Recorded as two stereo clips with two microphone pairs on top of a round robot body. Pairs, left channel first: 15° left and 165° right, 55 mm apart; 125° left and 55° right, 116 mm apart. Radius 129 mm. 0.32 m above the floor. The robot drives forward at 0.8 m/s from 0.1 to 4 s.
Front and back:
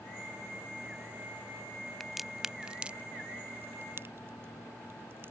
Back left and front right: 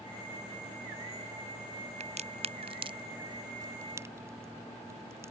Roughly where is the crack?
Right.